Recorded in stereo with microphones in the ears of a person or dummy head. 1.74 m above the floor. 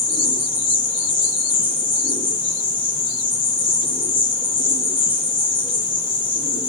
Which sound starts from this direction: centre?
An insect, at 0.0 s.